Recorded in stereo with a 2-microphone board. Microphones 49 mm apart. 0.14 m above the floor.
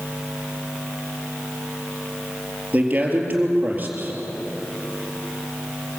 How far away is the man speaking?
About 4 m.